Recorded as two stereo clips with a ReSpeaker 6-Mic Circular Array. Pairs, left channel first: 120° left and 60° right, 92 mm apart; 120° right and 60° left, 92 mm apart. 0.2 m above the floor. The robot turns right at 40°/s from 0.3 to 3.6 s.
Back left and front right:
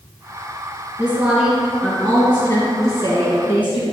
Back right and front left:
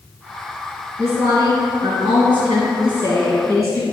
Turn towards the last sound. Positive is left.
turn(degrees=105)